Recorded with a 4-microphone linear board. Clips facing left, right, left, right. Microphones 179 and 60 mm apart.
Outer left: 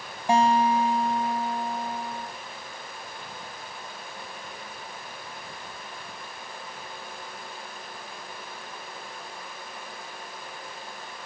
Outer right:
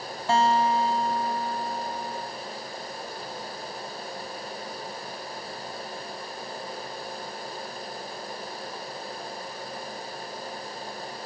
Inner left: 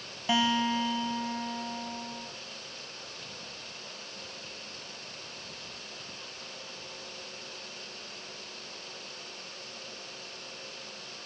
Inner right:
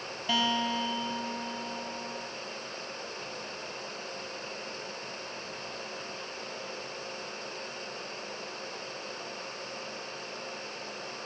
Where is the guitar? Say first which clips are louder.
Outer left 2 dB, inner left 2 dB; 15° left (ahead or behind), 0.6 m.